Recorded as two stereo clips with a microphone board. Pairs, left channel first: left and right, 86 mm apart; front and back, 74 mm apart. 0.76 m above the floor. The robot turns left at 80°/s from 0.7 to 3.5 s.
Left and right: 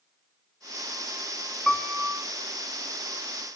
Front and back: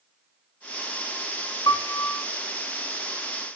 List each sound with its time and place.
1.7 s a piano: 10° left, 0.7 m; by 2.2 s 35° right, 0.7 m